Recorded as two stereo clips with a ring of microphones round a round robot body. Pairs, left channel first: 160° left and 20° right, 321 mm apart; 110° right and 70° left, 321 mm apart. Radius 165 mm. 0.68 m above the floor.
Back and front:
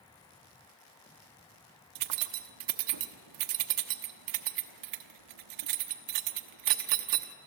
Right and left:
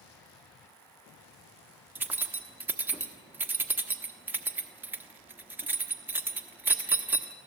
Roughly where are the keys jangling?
Ahead.